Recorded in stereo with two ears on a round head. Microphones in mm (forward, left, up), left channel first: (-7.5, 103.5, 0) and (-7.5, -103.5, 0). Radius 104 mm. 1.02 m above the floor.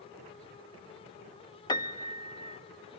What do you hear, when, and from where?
1.7 s a piano: 20° left (ahead or behind), 0.8 m